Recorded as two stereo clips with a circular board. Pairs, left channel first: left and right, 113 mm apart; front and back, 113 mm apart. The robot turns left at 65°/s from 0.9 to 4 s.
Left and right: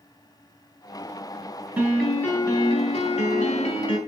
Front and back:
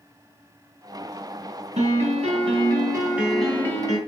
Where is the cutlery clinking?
I don't hear cutlery clinking.